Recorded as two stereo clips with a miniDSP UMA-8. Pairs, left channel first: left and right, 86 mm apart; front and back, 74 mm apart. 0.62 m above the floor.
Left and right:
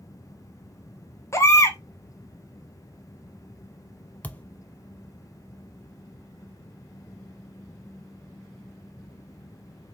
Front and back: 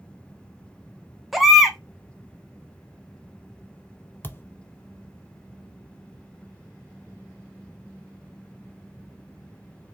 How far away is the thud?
About 0.5 m.